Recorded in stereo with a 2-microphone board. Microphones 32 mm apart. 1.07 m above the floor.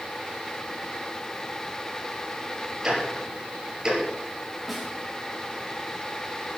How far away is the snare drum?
About 3.5 m.